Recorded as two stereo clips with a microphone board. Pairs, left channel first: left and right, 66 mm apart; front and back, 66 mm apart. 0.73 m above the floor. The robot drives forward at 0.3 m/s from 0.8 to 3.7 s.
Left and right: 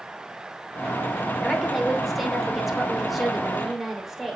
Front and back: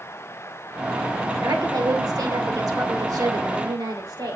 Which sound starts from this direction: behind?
A woman speaking, at 1.4 s.